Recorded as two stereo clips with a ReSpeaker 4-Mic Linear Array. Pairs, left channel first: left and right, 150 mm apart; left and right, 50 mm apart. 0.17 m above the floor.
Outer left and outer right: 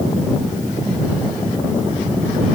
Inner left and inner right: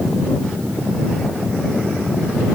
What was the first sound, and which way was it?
Only background noise.